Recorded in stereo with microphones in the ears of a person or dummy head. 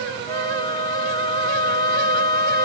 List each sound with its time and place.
0.3 s a flute: 20° left (ahead or behind), 0.6 m